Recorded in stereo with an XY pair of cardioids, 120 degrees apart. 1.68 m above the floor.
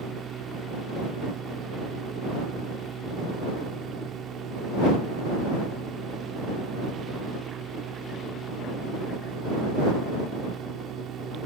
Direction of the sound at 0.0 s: 50° right.